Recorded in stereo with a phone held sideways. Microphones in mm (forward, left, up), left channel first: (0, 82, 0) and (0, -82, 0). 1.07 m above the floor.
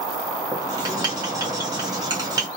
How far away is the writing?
About 1.1 m.